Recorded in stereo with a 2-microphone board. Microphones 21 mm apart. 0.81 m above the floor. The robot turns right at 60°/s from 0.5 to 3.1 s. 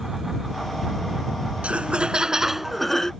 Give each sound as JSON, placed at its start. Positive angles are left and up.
{"t": 1.6, "sound": "laughter", "azimuth_deg": -65}